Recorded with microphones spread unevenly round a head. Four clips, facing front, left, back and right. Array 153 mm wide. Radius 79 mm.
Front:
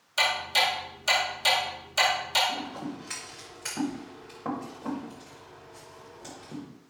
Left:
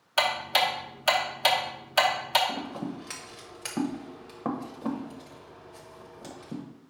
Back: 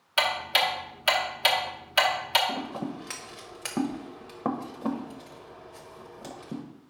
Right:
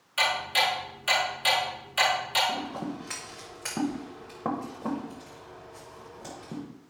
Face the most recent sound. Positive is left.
turn(degrees=-155)